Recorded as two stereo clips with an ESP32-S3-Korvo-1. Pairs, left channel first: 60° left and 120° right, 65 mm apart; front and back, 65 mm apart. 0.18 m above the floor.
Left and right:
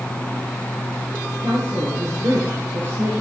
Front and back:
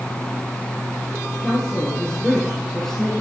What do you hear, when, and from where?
1.4 s a woman speaking: 75° right, 3.5 m